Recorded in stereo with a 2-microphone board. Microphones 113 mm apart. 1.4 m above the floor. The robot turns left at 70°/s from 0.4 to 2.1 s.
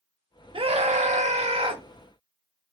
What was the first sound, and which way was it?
A scream, 45° right.